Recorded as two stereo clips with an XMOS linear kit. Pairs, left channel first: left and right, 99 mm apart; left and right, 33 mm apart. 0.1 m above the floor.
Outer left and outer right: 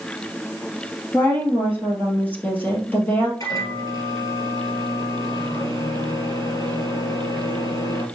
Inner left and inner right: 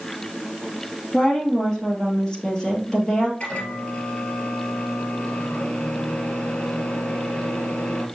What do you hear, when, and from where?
1.1 s a woman speaking: 20° left (ahead or behind), 2.5 m
3.4 s a microwave: 40° left (ahead or behind), 2 m